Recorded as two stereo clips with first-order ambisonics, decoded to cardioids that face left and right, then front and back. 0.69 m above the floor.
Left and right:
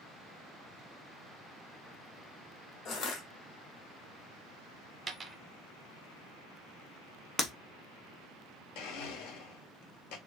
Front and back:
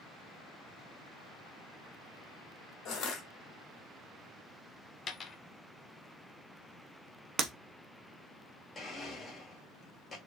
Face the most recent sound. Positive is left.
turn(degrees=80)